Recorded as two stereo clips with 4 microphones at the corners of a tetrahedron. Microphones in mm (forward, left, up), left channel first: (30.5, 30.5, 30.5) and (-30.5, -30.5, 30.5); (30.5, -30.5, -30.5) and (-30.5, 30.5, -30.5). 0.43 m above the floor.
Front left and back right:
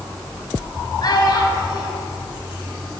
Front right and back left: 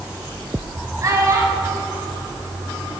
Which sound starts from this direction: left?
A child speaking, at 1.0 s.